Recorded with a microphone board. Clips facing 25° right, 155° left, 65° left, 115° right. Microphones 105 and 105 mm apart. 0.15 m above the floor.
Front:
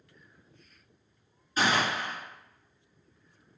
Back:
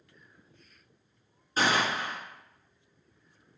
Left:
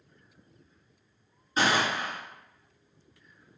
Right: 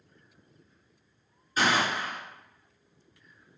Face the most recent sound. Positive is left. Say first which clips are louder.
# even, even
turn(degrees=120)